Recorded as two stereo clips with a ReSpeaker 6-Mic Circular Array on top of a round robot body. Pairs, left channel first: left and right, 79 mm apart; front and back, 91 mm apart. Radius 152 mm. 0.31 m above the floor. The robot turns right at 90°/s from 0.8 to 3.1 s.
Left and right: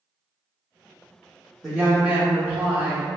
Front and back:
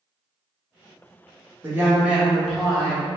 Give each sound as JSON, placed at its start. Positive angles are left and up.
{"t": 1.6, "sound": "a woman speaking", "azimuth_deg": -170, "distance_m": 0.9}